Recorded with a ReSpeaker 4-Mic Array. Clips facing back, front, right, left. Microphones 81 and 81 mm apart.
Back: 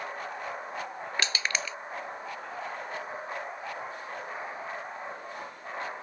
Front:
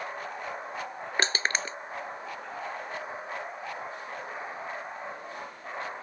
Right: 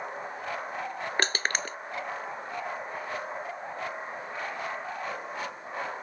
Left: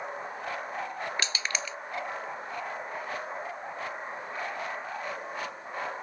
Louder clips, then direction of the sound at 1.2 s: Front 4 dB, right 4 dB; 50° right.